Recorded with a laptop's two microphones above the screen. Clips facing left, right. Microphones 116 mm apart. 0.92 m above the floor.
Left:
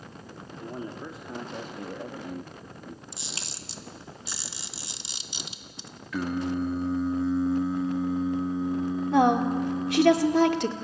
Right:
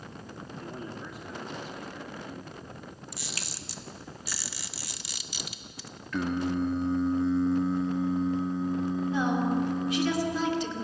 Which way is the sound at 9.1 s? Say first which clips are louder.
Left 7 dB; 80° left.